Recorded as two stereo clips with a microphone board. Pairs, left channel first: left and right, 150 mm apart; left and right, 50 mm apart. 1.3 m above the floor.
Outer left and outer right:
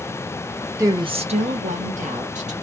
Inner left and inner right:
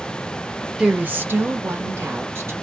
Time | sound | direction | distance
0.8 | a woman speaking | 20° right (ahead or behind) | 0.6 m